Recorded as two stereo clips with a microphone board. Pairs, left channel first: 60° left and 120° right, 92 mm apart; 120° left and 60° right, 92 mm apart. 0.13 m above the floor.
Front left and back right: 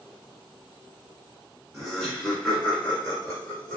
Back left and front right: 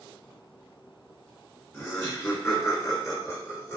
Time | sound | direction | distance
1.7 | laughter | 155° left | 1.5 m